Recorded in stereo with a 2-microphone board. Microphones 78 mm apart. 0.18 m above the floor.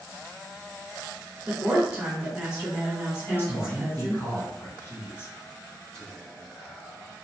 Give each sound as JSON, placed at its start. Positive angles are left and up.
{"t": 1.5, "sound": "a woman speaking", "side_deg": -15, "distance_m": 1.0}
{"t": 3.2, "sound": "a man speaking", "side_deg": 30, "distance_m": 1.4}
{"t": 5.9, "sound": "whispering", "side_deg": 5, "distance_m": 1.3}